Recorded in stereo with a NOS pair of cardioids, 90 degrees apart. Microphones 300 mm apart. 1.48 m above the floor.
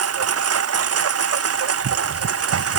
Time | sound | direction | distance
0.0 | a lawn mower | 50° right | ?